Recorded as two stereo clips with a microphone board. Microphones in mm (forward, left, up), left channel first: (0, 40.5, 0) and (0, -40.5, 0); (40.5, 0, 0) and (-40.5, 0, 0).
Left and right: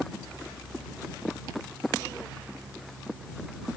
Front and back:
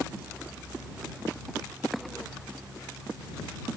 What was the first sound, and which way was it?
Only background noise.